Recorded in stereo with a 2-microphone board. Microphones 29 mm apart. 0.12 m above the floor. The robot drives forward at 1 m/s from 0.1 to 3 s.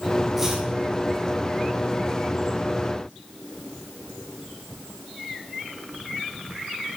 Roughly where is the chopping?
Centre.